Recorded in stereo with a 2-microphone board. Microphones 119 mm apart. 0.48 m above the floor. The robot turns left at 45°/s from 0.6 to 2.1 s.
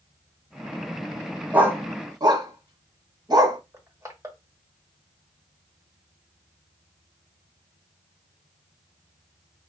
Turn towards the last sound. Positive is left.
turn(degrees=-25)  # may be behind; listen again after turning